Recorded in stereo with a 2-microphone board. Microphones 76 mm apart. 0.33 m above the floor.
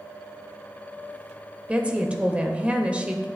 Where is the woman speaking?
15° right (ahead or behind), 0.9 m.